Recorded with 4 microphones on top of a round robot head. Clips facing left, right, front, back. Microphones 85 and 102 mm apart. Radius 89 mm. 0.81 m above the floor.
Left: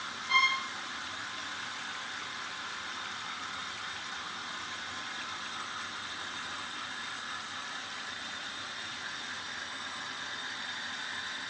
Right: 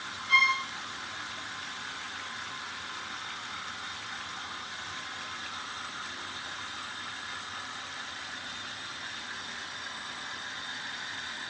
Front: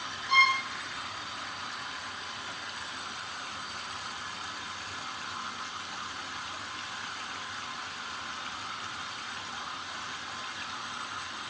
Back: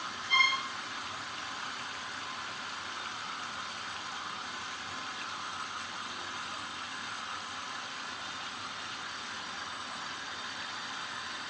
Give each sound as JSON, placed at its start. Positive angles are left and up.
{"t": 0.3, "sound": "a violin", "azimuth_deg": 20, "distance_m": 3.5}